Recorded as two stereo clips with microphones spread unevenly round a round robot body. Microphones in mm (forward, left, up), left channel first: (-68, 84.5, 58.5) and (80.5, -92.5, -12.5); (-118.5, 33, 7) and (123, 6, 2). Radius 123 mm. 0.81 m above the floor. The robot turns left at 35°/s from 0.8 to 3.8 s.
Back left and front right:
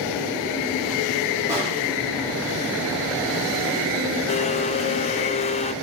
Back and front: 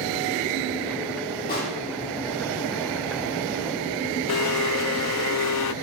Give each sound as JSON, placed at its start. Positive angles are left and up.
{"t": 1.5, "sound": "a pop", "azimuth_deg": -130, "distance_m": 8.5}
{"t": 4.3, "sound": "a blender", "azimuth_deg": -160, "distance_m": 0.5}